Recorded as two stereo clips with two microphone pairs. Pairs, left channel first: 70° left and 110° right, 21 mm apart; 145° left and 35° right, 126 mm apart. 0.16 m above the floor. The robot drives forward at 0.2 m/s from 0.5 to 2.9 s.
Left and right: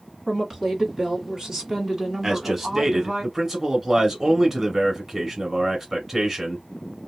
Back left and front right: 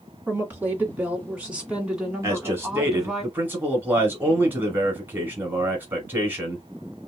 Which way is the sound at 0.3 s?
95° right.